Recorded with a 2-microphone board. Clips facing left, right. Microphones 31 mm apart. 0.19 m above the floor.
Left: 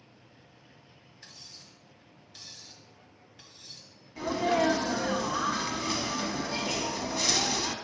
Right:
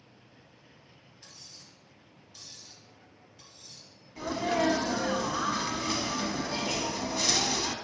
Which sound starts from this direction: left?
Cutlery clinking, at 1.2 s.